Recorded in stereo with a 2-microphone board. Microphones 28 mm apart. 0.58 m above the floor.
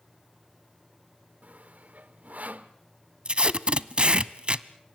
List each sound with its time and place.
1.4 s sawing: 70° right (ahead or behind), 1.0 m
3.2 s tape being pulled: 40° right (ahead or behind), 0.6 m